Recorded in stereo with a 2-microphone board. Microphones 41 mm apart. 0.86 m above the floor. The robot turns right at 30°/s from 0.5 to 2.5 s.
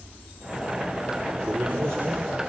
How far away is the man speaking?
About 3.5 m.